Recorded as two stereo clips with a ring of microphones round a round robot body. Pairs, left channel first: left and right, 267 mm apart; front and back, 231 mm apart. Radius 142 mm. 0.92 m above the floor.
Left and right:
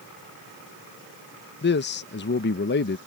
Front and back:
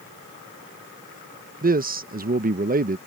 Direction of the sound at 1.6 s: 135° left.